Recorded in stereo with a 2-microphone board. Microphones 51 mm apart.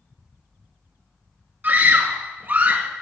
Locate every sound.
1.6 s a scream: 40° right (ahead or behind), 2.5 m; by 2.9 s 35° right (ahead or behind), 2.0 m